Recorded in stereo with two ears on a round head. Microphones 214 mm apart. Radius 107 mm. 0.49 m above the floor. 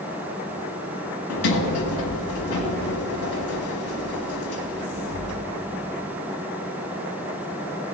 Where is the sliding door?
70° left (ahead or behind), 1.5 m.